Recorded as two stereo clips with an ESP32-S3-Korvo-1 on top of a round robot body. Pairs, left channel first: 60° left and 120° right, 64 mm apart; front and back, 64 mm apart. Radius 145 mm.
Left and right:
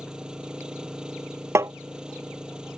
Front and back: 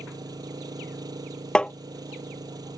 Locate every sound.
0.0 s an engine running: 160° left
1.6 s tapping: 75° right